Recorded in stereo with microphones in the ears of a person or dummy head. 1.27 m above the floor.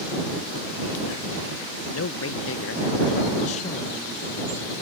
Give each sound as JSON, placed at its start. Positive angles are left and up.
{"t": 1.9, "sound": "a man speaking", "side_deg": 75}